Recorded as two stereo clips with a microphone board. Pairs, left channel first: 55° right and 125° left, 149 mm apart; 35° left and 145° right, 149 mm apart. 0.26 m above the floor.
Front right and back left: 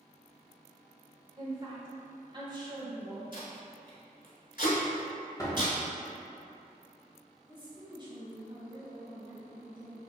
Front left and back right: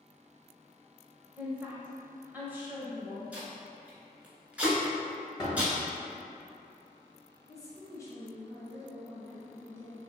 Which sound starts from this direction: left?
A woman speaking, at 7.4 s.